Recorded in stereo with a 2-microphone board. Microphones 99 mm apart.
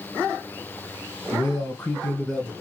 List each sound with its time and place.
1.3 s a man speaking: 25° left (ahead or behind), 1.6 m; by 2.5 s 10° right (ahead or behind), 1.7 m